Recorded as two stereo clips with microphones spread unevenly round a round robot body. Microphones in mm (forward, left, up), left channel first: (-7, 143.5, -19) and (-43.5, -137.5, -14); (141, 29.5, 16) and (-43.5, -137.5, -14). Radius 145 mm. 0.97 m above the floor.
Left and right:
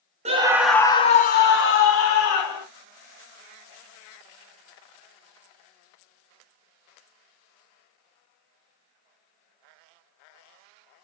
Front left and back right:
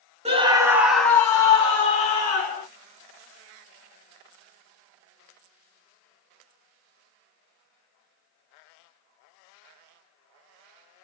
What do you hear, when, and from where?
0.2 s a scream: 145° right, 0.7 m; by 2.6 s 105° left, 1.4 m